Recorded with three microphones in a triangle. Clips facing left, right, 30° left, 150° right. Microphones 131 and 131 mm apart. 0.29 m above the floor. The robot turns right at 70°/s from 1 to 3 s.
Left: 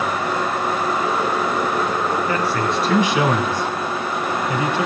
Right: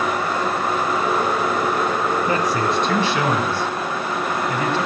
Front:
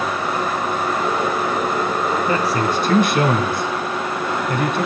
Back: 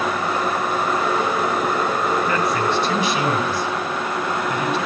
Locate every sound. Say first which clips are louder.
2.3 s a man speaking: right 1 dB, front 1 dB; 35° right, 2.5 m; by 4.9 s 20° left, 2.5 m